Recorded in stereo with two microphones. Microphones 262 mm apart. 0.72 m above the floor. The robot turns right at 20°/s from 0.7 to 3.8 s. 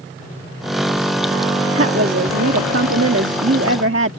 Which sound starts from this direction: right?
A woman speaking, at 1.7 s.